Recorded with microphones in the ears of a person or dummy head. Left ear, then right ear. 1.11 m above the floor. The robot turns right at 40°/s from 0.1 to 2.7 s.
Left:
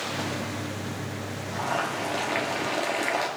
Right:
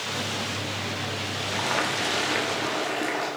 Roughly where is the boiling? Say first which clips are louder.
Right 1 dB; ahead right.